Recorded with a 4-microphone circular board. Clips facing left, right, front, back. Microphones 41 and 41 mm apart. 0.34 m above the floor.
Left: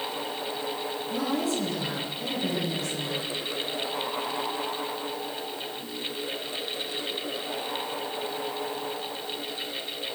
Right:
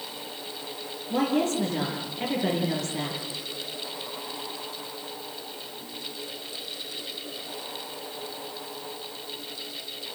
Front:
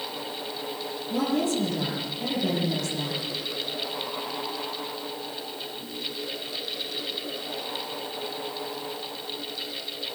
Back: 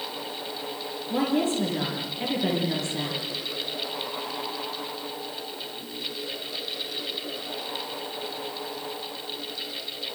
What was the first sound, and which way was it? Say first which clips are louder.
A woman speaking: right 4 dB, back 1 dB; 135° right.